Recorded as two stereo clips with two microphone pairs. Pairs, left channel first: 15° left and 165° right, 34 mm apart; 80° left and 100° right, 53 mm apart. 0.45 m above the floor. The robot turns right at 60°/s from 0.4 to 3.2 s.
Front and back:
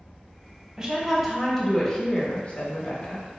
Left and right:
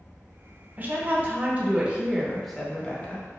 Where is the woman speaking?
115° right, 0.9 m; by 3.3 s 30° left, 0.9 m.